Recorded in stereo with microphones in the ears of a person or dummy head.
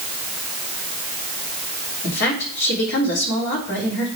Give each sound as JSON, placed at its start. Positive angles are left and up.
{"t": 2.0, "sound": "a woman speaking", "side_deg": 55, "distance_m": 3.0}